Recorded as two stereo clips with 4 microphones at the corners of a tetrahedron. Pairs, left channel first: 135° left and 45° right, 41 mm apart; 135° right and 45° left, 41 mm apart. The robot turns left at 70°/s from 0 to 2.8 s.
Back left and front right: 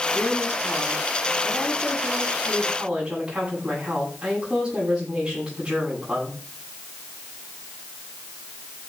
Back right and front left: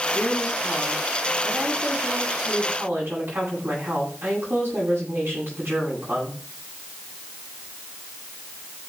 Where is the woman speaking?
150° right, 10 m; by 6.4 s 20° left, 10 m.